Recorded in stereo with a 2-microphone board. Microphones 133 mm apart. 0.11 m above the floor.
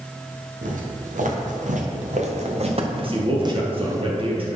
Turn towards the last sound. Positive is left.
turn(degrees=-45)  # may be behind; listen again after turning